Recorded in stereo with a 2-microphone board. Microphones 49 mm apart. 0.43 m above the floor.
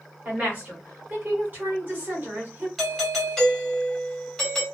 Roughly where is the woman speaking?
Right.